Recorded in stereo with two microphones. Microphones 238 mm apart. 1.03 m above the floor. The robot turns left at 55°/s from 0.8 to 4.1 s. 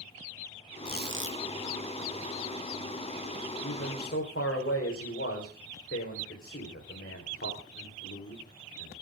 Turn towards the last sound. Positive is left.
turn(degrees=55)  # may be behind; listen again after turning